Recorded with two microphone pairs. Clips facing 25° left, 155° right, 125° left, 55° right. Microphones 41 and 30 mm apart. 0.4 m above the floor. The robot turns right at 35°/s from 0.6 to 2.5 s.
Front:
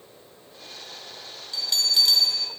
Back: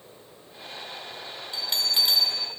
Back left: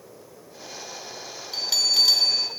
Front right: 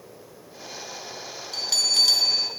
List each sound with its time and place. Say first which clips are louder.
1.5 s a bell: front 3 dB, back left 1 dB; 165° right, 1.3 m; by 2.5 s 135° right, 1.3 m